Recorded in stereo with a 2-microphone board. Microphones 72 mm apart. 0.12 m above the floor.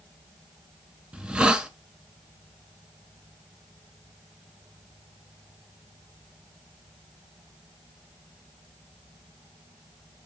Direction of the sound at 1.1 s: 10° right (ahead or behind).